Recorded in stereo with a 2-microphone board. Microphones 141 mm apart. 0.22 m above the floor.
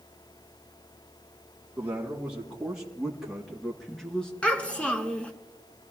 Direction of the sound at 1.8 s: 10° right (ahead or behind).